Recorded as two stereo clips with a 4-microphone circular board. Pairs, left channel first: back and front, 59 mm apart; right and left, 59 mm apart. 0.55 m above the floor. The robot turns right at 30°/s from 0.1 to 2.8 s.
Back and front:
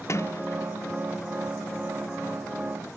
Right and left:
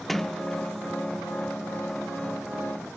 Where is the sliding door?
175° right, 0.5 m; by 1.3 s 140° right, 0.5 m.